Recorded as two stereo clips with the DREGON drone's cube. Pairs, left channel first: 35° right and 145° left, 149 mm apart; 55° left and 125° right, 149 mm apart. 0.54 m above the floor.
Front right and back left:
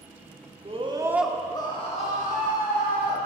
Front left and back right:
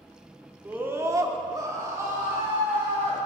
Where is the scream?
160° left, 0.9 m; by 3.2 s 50° right, 2.5 m.